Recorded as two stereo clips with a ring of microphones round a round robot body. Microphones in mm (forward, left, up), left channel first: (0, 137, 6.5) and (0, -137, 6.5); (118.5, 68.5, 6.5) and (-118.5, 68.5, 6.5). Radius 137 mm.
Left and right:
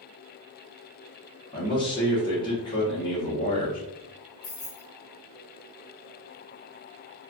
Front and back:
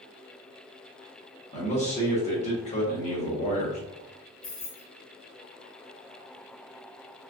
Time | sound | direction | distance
1.5 | a man speaking | 30° left | 1.2 m
4.4 | keys jangling | 40° left | 1.8 m